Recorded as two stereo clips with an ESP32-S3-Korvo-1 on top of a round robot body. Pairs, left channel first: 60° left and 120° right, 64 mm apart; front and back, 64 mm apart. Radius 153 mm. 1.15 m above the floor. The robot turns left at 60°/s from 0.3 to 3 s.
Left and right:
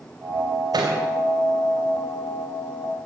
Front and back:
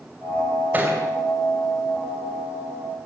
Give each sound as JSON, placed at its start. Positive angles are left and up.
{"t": 0.7, "sound": "a thud", "azimuth_deg": -115, "distance_m": 3.0}